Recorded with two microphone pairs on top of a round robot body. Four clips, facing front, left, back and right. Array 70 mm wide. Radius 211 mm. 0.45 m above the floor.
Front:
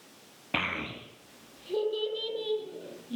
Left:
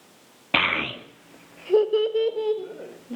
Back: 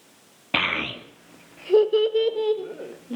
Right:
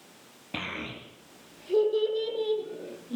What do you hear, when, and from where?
0.5 s a child speaking: 115° left, 0.9 m; by 3.2 s 160° left, 1.9 m